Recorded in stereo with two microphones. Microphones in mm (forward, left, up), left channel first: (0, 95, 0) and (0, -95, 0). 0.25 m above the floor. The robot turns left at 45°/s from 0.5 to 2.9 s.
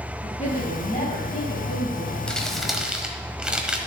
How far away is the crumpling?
About 1.1 m.